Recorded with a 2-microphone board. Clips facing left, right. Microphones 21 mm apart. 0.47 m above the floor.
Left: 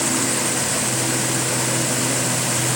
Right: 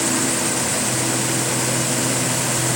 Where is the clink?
No clink in this recording.